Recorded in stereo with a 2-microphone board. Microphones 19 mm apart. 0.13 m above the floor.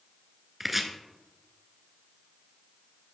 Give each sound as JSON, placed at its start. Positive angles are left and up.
{"t": 0.6, "sound": "chopping", "side_deg": -10, "distance_m": 1.0}